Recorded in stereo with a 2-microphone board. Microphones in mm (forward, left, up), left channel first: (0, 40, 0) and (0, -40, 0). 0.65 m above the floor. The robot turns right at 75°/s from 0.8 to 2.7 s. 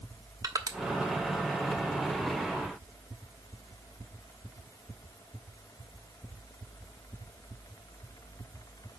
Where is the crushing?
50° right (ahead or behind), 1.0 m.